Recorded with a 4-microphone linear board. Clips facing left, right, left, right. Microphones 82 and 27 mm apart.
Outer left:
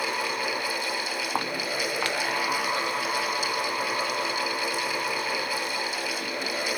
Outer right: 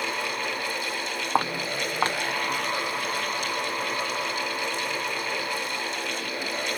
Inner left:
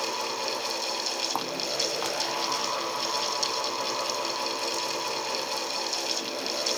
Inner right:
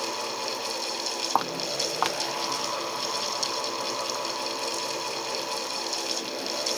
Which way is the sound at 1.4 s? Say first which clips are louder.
Outer right 5 dB, inner right 2 dB; 25° right (ahead or behind).